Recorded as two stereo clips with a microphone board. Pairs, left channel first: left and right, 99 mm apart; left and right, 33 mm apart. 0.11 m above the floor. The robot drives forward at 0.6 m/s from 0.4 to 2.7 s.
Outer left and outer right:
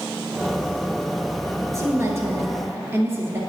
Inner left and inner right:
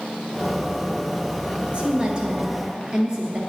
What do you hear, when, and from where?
1.7 s a woman speaking: 30° right (ahead or behind), 1.4 m; by 3.4 s 25° right (ahead or behind), 1.8 m